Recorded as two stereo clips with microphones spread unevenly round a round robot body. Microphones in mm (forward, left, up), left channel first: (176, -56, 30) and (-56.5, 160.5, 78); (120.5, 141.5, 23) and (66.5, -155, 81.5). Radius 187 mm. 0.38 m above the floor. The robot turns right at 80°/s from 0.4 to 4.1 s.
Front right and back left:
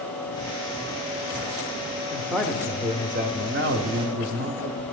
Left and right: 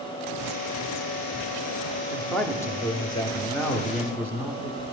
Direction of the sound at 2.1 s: Straight ahead.